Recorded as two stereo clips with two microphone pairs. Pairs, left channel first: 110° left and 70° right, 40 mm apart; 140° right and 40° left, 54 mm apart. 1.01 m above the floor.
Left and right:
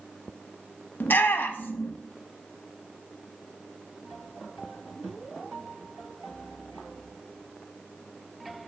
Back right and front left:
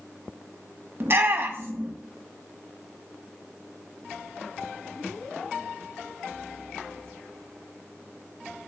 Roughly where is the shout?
Left.